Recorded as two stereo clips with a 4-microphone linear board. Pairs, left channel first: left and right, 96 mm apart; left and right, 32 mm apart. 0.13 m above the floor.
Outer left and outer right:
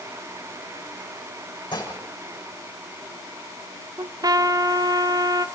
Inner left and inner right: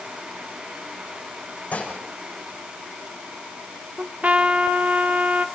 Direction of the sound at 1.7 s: 55° left (ahead or behind).